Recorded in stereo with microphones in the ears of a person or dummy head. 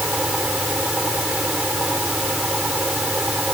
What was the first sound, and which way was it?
A fan, 5° right (ahead or behind).